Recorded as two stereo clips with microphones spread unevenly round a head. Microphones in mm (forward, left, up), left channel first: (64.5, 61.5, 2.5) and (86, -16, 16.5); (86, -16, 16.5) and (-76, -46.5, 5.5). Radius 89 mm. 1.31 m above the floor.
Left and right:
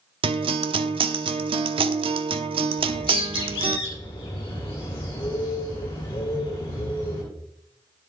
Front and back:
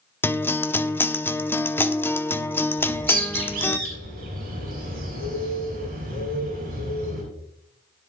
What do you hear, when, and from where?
0.2 s a guitar: 65° right, 0.8 m
2.8 s a bird: 145° left, 6 m